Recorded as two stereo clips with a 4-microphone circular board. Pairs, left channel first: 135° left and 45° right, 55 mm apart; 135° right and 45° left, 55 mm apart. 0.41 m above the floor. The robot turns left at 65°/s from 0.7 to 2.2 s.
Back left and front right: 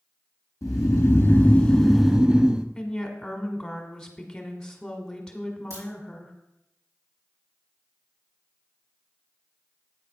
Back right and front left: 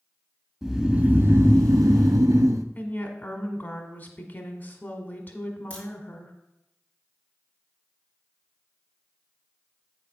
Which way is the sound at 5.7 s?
70° right.